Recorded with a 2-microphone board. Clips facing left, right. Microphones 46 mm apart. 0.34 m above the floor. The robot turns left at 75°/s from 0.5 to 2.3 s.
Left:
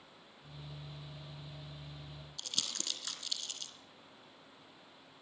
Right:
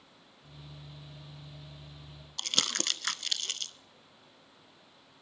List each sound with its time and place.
2.4 s crumpling: 60° right (ahead or behind), 0.8 m